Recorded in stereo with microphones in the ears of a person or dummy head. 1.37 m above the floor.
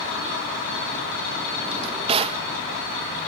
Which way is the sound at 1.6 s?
25° right (ahead or behind).